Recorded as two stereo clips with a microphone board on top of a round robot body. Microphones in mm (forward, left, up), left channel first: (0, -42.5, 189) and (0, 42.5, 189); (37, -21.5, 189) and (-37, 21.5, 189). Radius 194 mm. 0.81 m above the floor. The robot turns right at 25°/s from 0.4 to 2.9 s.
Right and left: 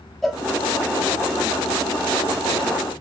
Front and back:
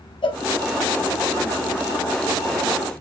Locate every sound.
0.2 s a cowbell: straight ahead, 1.0 m